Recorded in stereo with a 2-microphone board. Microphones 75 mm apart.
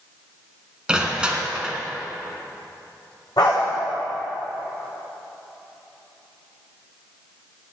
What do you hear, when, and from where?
0.9 s crushing: 10° right (ahead or behind), 2.0 m
3.4 s a dog barking: 70° left (ahead or behind), 6 m